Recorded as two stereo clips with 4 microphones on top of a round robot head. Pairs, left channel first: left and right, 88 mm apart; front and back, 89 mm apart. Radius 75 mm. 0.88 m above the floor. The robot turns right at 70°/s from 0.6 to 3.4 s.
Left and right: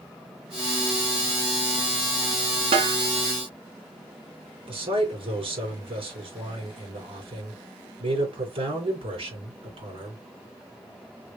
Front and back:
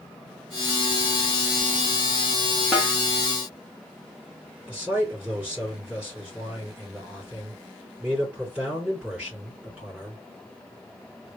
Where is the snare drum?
100° right, 1.2 m; by 3.0 s 85° right, 1.2 m.